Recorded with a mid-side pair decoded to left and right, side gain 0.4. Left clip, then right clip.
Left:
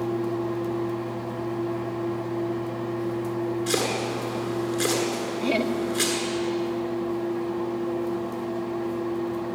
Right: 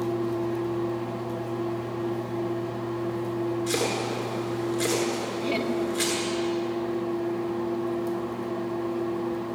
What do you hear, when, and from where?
3.7 s chopping: 55° left, 9 m
5.4 s laughter: 60° left, 2.5 m